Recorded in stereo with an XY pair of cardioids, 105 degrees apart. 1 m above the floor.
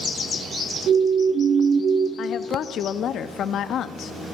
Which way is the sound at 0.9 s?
60° right.